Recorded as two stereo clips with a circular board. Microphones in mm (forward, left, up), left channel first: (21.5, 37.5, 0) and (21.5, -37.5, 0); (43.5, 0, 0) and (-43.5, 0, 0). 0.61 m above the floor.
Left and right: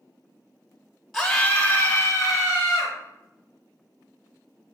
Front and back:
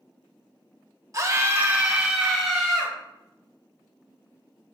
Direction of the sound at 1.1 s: 175° left.